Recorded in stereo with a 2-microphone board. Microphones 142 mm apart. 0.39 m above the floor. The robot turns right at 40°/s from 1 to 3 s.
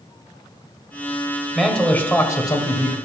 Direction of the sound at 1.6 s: Straight ahead.